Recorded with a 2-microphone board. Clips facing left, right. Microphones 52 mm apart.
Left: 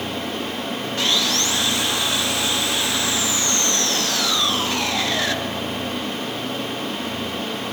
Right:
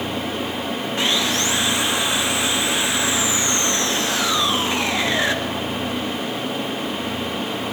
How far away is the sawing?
About 1.5 m.